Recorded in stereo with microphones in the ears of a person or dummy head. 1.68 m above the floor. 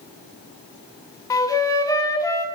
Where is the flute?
20° left (ahead or behind), 0.5 m.